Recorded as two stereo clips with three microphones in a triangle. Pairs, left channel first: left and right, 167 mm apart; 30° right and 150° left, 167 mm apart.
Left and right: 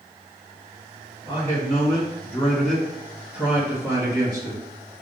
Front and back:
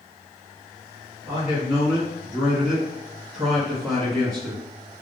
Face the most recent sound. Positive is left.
turn(degrees=-115)